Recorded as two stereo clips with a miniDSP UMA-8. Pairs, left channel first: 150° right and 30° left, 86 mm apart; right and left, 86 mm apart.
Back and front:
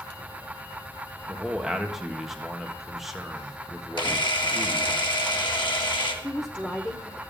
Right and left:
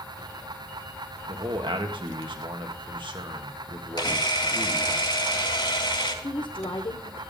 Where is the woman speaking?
70° right, 0.9 m.